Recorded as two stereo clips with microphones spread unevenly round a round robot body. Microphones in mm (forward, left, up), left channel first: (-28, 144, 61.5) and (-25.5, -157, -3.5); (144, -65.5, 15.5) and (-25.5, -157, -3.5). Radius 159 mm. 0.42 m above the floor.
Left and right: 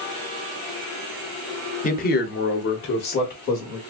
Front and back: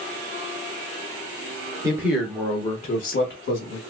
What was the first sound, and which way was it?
A man speaking, 155° left.